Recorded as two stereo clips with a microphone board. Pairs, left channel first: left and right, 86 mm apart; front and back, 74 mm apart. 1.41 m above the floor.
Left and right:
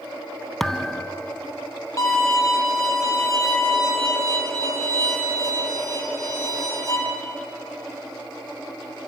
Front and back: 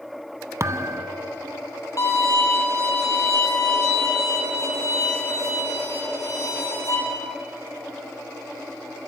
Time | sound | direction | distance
0.6 | a thud | 175° left | 0.8 m
2.0 | a violin | 40° left | 6.5 m